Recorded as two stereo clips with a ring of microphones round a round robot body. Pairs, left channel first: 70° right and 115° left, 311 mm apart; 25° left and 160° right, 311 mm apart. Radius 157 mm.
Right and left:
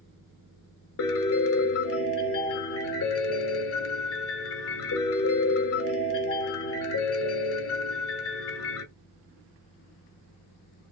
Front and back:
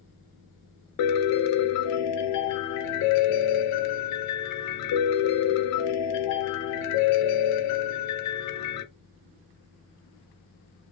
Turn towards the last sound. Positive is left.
turn(degrees=-15)